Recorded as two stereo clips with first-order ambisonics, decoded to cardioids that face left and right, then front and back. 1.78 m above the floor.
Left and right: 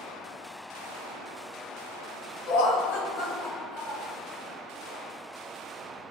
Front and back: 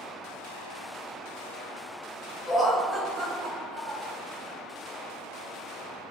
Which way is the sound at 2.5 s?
80° left.